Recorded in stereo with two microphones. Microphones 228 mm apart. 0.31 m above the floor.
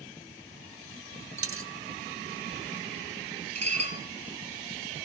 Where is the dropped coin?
65° right (ahead or behind), 1.1 m.